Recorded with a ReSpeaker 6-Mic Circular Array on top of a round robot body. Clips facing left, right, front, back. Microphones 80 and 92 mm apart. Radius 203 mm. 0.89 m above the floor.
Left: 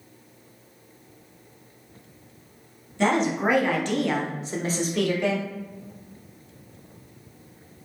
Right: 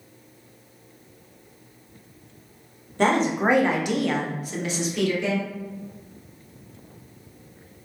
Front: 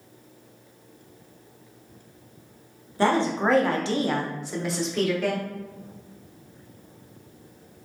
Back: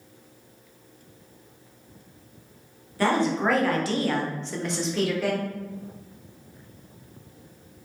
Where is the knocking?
I don't hear knocking.